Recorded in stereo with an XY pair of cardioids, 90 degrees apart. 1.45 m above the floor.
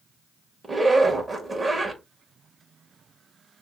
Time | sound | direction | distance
0.6 | a zipper | 25° right | 2 m